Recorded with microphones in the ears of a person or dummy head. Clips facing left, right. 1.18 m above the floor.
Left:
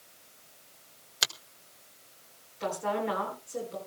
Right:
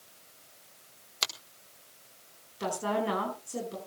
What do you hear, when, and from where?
1.2 s a finger snap: 15° left (ahead or behind), 1.2 m
2.6 s a woman speaking: 55° right (ahead or behind), 9.5 m